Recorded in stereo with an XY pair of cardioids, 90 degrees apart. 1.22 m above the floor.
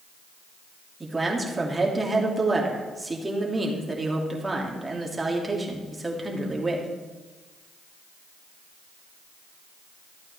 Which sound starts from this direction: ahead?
A man speaking, at 1.0 s.